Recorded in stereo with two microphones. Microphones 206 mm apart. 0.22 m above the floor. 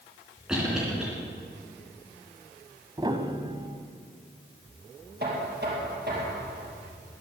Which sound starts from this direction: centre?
A cough, at 0.5 s.